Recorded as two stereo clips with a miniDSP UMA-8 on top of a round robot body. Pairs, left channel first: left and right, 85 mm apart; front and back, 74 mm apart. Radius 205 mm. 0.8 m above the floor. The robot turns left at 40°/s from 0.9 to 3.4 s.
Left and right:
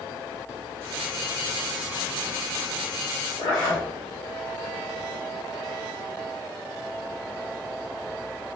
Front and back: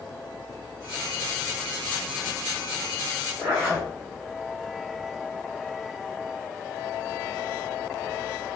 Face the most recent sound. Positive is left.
turn(degrees=100)